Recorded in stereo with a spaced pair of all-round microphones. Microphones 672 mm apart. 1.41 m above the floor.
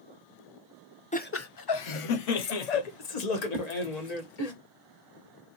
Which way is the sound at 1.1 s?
10° left (ahead or behind).